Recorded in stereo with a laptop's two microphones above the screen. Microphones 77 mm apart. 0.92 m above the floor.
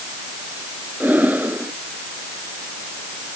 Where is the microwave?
No microwave in this recording.